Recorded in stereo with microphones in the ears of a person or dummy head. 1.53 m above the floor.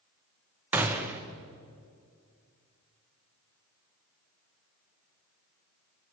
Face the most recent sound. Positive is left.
turn(degrees=-10)  # may be behind; listen again after turning